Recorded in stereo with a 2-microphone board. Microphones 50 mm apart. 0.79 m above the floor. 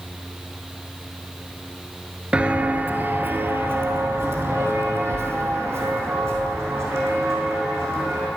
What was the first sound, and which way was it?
Footsteps, 20° right (ahead or behind).